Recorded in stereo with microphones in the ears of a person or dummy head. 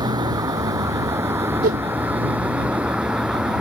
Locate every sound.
0.0 s a vehicle: 25° right (ahead or behind); by 3.6 s 5° right (ahead or behind)
1.6 s a whoosh: 45° right (ahead or behind)